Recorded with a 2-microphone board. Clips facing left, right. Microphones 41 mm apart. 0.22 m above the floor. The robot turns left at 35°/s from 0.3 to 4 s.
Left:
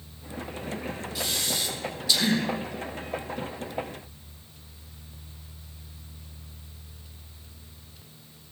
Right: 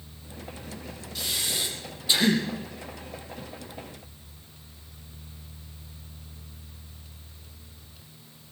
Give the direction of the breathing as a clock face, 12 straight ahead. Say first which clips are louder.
Right 1 dB; 12 o'clock.